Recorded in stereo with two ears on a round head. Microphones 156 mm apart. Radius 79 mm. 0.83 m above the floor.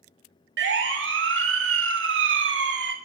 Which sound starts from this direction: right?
A siren, at 0.6 s.